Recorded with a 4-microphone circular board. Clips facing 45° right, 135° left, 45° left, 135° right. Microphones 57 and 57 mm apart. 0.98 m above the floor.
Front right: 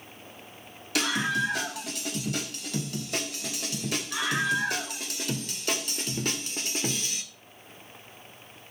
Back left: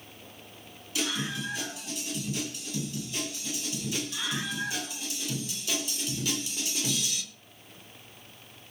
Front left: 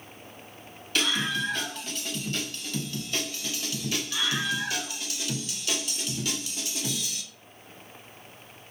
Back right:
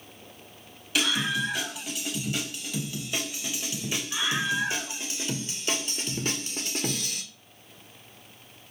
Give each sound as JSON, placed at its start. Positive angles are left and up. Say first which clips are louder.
{"t": 0.9, "sound": "a scream", "louder": "front right 6 dB, back right 1 dB", "azimuth_deg": -50, "distance_m": 5.5}